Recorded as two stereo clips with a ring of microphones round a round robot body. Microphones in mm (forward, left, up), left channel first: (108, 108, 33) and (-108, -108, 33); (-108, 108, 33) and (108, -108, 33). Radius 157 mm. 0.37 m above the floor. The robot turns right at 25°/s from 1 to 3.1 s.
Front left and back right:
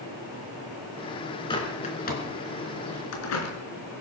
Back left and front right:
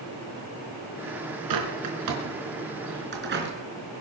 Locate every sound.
1.5 s a bird: 30° right, 3.5 m; by 3.5 s 10° left, 3.5 m